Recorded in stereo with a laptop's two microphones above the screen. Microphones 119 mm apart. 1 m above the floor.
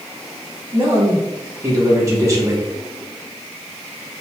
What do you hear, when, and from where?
0.7 s a man speaking: 30° right (ahead or behind), 2 m